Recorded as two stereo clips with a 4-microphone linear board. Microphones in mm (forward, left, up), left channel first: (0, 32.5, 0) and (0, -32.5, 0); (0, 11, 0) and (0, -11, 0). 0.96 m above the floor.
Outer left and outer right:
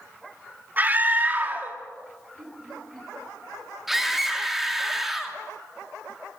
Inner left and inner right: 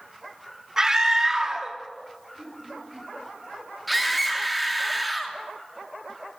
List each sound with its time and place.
0.8 s a scream: 25° right (ahead or behind), 2.5 m
2.4 s laughter: 85° right, 10 m
3.9 s a scream: centre (ahead or behind), 2.5 m